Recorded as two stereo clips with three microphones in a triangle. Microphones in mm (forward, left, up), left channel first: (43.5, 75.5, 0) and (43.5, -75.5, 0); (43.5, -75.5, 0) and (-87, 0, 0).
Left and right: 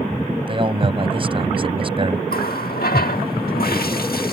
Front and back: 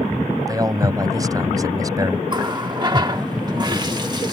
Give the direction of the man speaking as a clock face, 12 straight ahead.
5 o'clock.